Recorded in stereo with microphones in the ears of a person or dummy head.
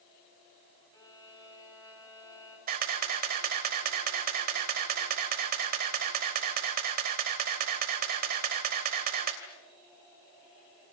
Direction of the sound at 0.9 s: 25° left (ahead or behind).